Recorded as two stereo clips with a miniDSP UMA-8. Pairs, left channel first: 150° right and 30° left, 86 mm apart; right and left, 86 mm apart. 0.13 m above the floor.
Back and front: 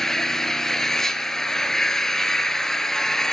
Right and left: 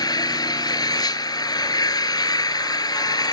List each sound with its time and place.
0.0 s an engine running: 65° right, 1.0 m